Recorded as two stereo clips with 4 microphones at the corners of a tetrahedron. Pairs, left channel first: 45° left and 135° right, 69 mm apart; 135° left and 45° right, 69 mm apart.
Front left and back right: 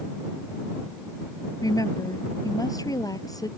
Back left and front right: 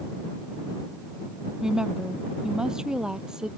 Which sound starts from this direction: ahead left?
A woman speaking, at 1.6 s.